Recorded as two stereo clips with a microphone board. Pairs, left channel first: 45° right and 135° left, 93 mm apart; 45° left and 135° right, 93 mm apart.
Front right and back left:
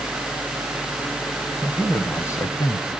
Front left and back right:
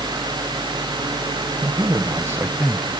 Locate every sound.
1.6 s a man speaking: 120° right, 2 m; by 2.9 s 35° right, 1.7 m